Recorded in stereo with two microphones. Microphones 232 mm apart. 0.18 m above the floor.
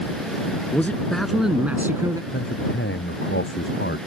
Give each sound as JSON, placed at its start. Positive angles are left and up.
{"t": 0.7, "sound": "a man speaking", "side_deg": 10}
{"t": 2.3, "sound": "a man speaking", "side_deg": 60}